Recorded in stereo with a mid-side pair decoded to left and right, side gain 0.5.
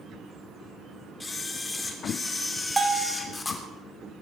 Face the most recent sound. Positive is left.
turn(degrees=-20)